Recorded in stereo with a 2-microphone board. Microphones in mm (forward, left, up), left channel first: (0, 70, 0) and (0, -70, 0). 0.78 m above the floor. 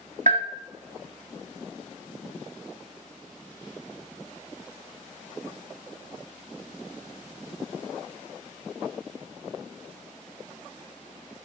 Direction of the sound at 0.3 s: 60° right (ahead or behind).